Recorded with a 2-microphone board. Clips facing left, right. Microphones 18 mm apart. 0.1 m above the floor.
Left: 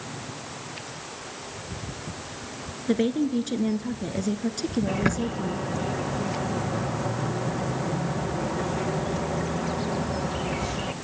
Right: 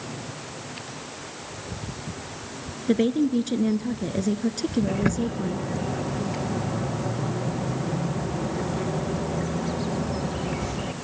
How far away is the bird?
About 1.3 m.